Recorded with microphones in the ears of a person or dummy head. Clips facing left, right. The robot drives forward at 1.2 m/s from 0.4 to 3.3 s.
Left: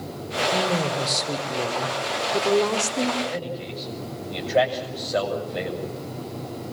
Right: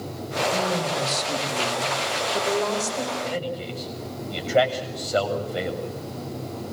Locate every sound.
0.5 s a woman speaking: 45° left (ahead or behind), 4.5 m; by 3.1 s 90° left, 3 m
3.2 s a man speaking: 5° left (ahead or behind), 6.5 m